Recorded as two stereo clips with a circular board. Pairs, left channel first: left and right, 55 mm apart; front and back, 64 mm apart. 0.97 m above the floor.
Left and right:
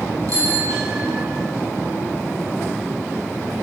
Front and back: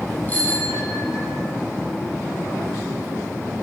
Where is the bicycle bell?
65° right, 6.5 m; by 1.4 s 55° right, 7 m.